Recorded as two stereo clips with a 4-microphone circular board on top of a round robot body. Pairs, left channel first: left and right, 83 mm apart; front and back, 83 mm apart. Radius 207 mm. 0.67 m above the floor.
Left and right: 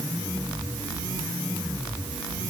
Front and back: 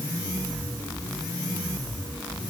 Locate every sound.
Only background noise.